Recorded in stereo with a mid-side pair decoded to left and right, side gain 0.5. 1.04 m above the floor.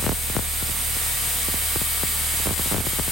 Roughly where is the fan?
Ahead right.